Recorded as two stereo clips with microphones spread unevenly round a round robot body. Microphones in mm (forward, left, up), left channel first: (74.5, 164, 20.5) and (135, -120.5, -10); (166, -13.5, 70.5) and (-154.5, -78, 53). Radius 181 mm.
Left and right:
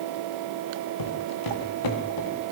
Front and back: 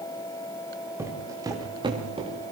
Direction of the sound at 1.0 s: 110° left.